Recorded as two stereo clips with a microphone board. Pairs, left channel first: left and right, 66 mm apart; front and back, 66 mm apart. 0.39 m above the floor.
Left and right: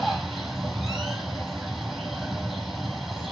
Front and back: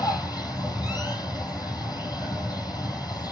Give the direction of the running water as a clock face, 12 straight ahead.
12 o'clock.